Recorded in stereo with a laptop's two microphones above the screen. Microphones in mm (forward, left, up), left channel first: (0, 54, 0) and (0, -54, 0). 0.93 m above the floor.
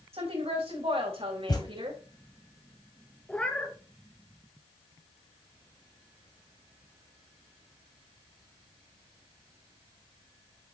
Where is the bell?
I don't hear a bell.